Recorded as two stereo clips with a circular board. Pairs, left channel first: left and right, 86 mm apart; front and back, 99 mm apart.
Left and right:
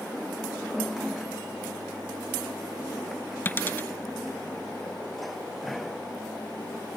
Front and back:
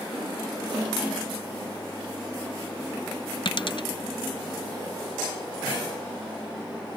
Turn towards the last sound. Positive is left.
turn(degrees=25)